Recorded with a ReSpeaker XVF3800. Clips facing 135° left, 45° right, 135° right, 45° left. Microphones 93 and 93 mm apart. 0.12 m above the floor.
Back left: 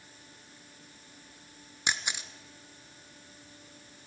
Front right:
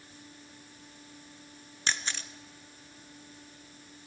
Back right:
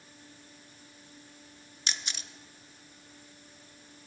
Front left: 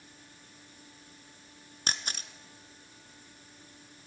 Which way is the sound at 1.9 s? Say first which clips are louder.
Back left 1 dB, front left 3 dB; 65° left.